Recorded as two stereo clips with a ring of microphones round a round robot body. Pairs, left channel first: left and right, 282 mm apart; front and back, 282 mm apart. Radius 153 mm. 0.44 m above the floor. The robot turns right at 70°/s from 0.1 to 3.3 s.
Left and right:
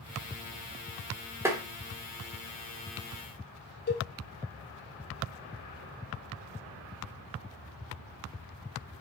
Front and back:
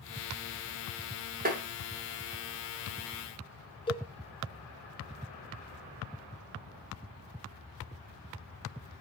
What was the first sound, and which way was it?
Tapping, 165° right.